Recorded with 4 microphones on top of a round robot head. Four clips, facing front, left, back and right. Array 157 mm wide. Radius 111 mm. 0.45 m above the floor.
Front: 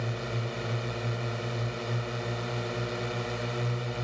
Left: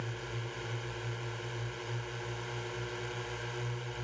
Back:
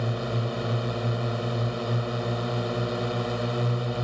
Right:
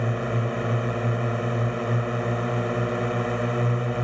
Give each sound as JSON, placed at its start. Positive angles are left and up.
{"t": 0.0, "sound": "a drone", "azimuth_deg": -110}